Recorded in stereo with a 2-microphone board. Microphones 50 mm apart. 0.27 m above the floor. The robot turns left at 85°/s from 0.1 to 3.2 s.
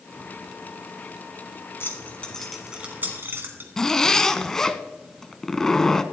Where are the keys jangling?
55° left (ahead or behind), 1.8 m; by 3.7 s 50° right (ahead or behind), 1.8 m.